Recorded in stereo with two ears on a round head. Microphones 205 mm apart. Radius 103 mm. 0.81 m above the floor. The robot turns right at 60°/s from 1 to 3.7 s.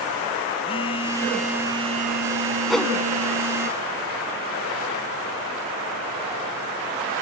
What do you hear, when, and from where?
0.7 s a phone buzzing: 155° left; by 3.7 s 45° right
2.7 s a whoosh: centre (ahead or behind); by 2.9 s 15° left (ahead or behind)